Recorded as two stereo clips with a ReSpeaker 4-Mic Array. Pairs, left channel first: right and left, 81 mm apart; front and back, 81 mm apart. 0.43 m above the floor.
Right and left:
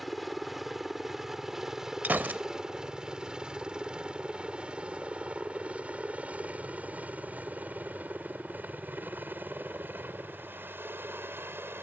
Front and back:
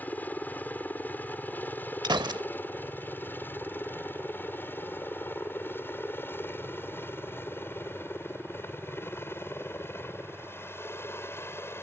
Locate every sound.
0.0 s a helicopter: straight ahead; by 11.8 s 45° left
2.0 s a gunshot: 155° left